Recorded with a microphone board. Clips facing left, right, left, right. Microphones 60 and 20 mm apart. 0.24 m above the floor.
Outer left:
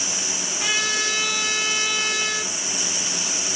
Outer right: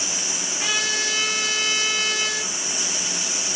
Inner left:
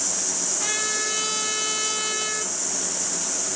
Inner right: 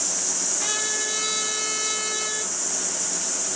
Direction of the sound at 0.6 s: 20° right (ahead or behind).